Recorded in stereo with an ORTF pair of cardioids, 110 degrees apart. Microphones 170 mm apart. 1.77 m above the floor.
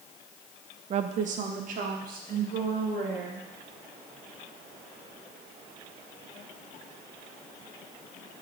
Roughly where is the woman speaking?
Ahead right.